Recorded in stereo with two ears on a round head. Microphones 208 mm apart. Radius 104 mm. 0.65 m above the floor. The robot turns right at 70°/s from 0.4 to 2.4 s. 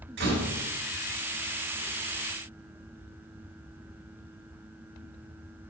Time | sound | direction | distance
0.2 | a door slam | 50° right (ahead or behind) | 2.5 m